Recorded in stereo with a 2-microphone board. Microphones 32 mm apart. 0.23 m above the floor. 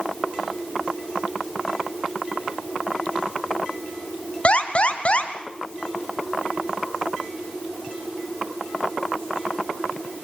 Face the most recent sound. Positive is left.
turn(degrees=45)  # may be behind; listen again after turning